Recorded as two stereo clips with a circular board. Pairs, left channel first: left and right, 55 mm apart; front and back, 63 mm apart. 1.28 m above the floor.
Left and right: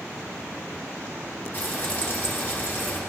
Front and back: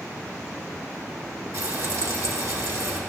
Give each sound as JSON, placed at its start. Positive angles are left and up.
{"t": 1.5, "sound": "frying", "azimuth_deg": 150, "distance_m": 1.5}